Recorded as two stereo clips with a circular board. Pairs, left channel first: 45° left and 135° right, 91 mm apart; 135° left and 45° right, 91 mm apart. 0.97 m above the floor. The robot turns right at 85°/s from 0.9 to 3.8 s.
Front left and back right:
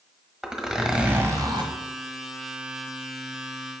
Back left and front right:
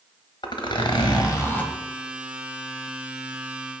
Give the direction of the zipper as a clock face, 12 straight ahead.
7 o'clock.